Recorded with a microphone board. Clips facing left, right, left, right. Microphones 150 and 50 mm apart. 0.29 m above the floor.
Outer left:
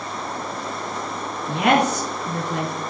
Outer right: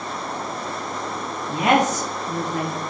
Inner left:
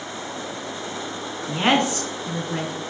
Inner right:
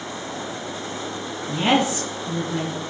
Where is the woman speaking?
70° left (ahead or behind), 3 m.